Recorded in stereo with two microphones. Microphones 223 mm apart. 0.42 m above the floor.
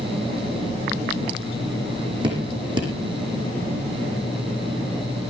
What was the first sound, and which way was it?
Dripping, 20° right (ahead or behind).